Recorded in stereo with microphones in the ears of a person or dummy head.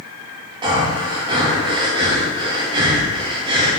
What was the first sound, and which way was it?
Breathing, 25° right (ahead or behind).